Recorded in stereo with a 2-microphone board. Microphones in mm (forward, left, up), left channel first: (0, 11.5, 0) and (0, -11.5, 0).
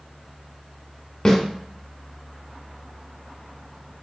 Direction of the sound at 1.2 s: 35° left (ahead or behind).